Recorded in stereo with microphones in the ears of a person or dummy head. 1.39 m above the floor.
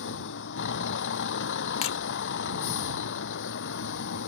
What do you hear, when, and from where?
0.0 s a vehicle: 65° left (ahead or behind)
1.8 s breaking glass: 30° left (ahead or behind)